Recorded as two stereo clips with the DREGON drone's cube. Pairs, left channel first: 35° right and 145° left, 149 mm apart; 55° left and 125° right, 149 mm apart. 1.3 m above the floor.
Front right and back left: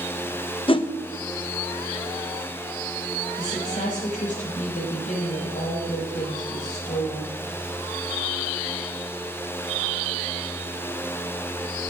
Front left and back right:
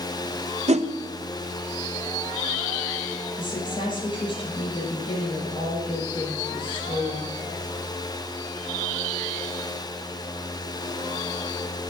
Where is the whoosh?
85° right, 0.7 m.